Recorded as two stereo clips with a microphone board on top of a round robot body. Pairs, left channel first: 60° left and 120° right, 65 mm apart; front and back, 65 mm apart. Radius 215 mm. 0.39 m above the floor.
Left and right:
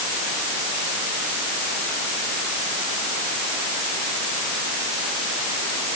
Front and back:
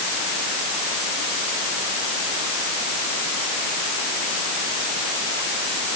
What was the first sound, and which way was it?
Only background noise.